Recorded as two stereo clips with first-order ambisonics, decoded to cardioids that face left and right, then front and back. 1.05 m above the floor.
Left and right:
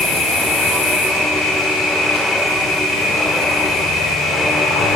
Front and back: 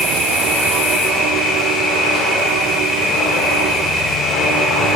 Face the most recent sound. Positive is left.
turn(degrees=55)